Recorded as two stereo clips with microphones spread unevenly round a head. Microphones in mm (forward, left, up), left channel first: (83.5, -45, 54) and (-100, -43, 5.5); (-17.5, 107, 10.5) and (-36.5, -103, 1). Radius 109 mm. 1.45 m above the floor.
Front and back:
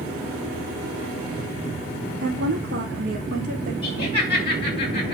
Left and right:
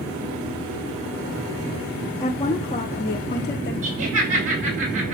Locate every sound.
2.2 s a woman speaking: 160° left, 3.5 m; by 3.7 s 135° left, 4 m
3.8 s laughter: 60° right, 5 m